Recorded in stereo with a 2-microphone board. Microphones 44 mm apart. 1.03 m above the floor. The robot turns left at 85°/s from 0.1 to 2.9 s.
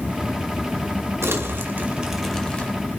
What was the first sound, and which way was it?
Crumpling, 90° right.